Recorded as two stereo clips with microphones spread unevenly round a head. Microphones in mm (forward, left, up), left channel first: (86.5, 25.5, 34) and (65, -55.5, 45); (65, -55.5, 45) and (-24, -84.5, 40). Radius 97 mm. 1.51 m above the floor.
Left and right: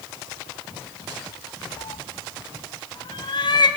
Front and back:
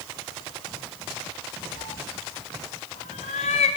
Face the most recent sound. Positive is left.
turn(degrees=45)